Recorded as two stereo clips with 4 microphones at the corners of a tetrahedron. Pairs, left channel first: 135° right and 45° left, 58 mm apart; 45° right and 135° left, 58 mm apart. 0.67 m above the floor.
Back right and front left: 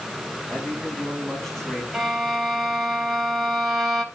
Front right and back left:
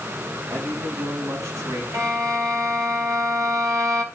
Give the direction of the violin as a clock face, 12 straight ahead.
8 o'clock.